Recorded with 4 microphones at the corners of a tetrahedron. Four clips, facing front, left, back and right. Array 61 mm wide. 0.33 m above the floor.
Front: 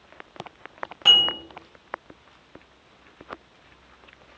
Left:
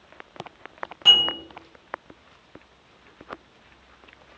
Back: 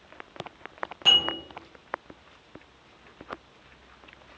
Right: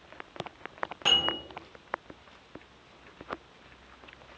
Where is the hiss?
I don't hear a hiss.